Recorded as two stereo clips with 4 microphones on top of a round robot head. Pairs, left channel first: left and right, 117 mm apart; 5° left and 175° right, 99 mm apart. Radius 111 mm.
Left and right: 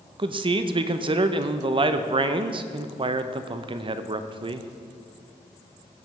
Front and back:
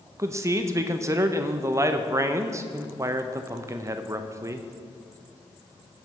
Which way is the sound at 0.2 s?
120° right.